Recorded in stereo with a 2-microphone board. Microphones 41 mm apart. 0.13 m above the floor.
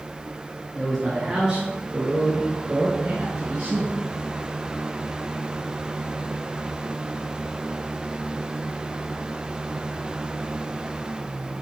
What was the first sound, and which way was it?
A man speaking, 5° right (ahead or behind).